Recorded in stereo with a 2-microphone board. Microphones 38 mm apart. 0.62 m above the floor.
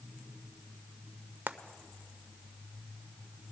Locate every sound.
1.5 s frying: 70° right (ahead or behind), 0.5 m